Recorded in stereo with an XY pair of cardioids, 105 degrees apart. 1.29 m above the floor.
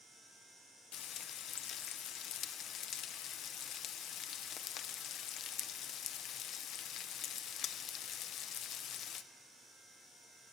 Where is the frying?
70° left, 0.5 m.